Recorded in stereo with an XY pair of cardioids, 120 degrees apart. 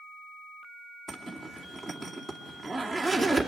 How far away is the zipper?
About 2.5 m.